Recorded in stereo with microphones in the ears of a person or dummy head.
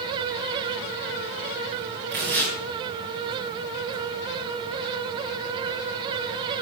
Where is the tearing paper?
45° right (ahead or behind), 2 m.